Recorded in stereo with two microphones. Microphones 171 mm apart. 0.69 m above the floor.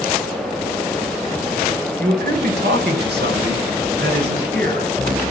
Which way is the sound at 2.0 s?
70° right (ahead or behind).